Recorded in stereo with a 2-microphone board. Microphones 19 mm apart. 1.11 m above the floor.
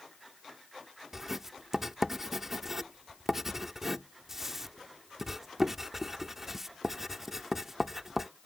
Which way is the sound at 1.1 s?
20° right (ahead or behind).